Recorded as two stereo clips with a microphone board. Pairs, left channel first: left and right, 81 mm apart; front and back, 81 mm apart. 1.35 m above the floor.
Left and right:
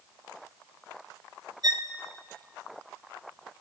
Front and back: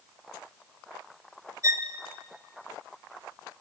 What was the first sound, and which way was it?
A violin, 130° right.